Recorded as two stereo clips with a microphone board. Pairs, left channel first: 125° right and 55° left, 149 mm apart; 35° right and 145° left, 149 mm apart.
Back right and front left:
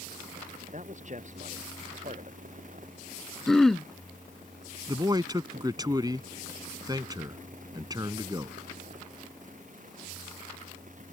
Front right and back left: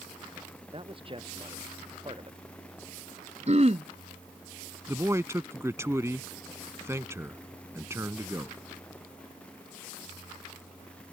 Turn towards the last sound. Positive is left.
turn(degrees=90)